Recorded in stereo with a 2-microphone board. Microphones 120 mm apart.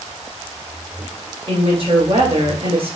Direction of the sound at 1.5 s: 50° right (ahead or behind).